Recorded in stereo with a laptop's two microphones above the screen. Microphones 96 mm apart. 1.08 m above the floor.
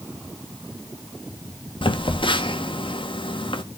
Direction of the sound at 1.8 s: 65° left (ahead or behind).